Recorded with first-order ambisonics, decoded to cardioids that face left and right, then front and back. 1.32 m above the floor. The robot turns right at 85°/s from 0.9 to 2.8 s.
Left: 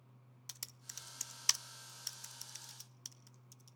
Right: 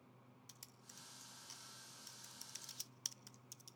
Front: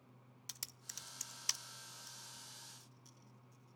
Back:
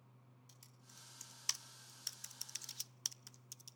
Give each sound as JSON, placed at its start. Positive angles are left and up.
{"t": 0.5, "sound": "typing on a keyboard", "azimuth_deg": 35, "distance_m": 0.5}